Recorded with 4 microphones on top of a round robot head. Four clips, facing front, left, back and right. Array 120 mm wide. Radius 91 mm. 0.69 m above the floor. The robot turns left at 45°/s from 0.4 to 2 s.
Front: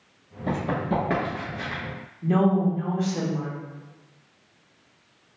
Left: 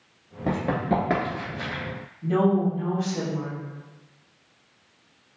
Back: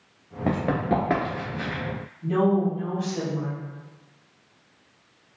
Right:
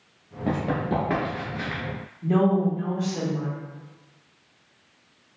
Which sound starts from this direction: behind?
Running footsteps, at 0.5 s.